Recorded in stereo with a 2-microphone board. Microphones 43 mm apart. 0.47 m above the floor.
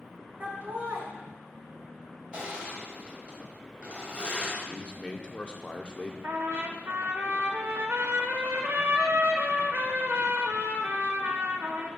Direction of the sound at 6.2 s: 60° right (ahead or behind).